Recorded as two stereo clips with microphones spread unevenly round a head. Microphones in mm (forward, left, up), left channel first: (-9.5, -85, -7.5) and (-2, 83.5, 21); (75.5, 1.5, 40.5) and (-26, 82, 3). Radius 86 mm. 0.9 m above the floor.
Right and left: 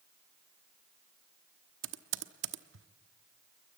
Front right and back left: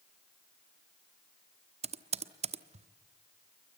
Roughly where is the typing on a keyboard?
Left.